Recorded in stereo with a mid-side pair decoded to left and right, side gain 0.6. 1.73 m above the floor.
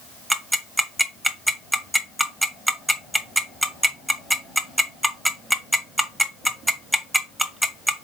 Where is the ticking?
5° right, 0.9 m.